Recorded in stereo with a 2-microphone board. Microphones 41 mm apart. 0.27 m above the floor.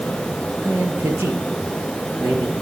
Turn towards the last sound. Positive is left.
turn(degrees=-80)